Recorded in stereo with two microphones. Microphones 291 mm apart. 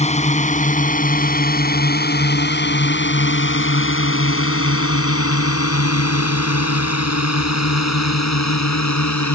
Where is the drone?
20° left (ahead or behind); by 9.4 s 65° left (ahead or behind).